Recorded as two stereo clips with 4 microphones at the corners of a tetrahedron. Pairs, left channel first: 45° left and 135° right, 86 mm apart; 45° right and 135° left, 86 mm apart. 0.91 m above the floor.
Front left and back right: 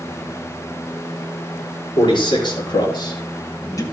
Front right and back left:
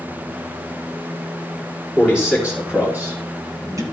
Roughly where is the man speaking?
Ahead left.